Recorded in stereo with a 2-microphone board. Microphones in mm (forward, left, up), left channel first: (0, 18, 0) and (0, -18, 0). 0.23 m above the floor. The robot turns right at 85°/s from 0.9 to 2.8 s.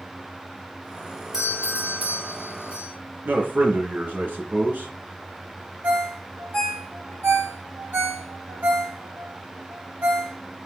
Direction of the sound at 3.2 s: 50° right (ahead or behind).